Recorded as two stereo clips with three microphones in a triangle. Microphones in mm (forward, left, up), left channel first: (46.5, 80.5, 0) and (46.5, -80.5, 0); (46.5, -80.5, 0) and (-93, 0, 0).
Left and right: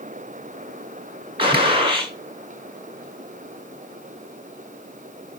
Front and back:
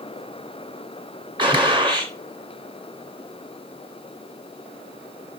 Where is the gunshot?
150° right, 1.8 m.